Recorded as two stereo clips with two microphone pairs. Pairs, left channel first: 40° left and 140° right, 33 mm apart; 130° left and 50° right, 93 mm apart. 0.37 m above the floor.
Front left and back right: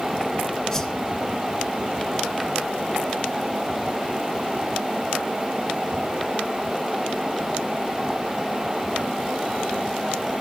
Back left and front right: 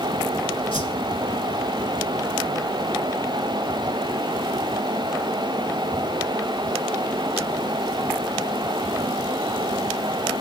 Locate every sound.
0.7 s a whoosh: 115° left, 0.8 m